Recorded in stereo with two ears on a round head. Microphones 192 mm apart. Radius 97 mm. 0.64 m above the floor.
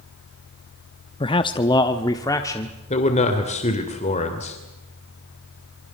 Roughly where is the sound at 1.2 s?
Left.